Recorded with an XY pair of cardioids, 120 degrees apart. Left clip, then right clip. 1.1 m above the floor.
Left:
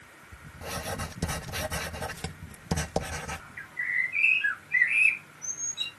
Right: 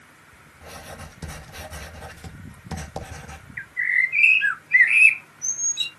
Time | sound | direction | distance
0.6 | writing | 40° left | 0.9 m
3.6 | a bird | 50° right | 0.7 m